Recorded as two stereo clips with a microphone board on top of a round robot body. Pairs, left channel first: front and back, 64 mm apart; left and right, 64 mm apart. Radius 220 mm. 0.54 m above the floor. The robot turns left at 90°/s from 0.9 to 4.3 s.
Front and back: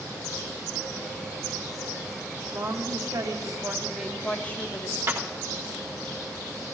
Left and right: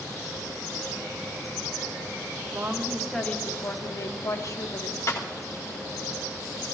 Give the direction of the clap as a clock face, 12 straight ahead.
8 o'clock.